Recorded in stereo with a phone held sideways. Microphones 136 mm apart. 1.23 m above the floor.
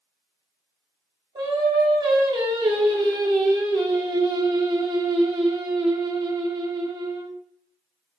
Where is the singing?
35° right (ahead or behind), 0.8 m.